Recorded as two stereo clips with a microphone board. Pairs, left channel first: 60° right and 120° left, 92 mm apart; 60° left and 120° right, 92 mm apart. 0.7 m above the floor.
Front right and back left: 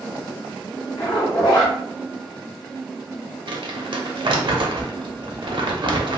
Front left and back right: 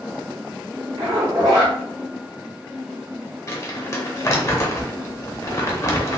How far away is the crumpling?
About 0.6 m.